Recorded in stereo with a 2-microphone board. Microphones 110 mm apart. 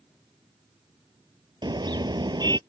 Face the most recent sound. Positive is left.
turn(degrees=-40)  # may be behind; listen again after turning